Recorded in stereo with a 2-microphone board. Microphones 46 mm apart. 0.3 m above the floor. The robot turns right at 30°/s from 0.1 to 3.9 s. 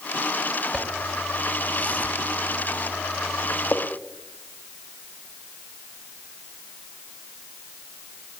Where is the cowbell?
I don't hear a cowbell.